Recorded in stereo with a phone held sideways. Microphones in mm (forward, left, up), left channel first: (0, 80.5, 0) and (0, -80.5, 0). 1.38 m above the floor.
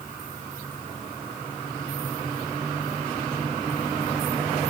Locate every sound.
Only background noise.